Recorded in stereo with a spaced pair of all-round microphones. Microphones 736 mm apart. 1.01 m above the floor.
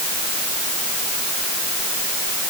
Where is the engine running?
I don't hear an engine running.